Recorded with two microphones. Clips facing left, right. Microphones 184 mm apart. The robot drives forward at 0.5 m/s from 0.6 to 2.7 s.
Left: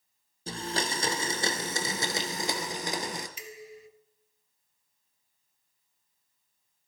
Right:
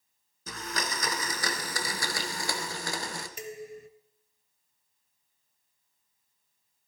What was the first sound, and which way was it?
A blender, 30° left (ahead or behind).